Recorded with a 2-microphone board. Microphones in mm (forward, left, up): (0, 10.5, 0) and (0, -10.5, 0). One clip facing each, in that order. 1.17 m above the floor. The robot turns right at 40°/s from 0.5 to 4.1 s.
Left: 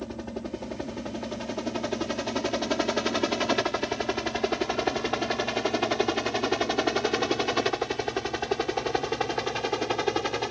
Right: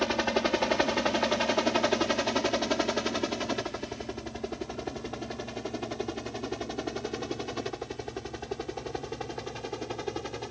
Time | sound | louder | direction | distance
0.0 | a helicopter | right 8 dB | 60° right (ahead or behind) | ?